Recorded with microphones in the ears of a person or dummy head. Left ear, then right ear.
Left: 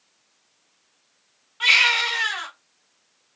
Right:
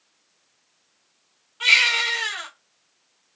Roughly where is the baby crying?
Centre.